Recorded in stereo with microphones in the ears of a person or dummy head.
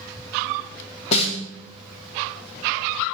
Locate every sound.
1.1 s a snare drum: 35° left (ahead or behind), 1.8 m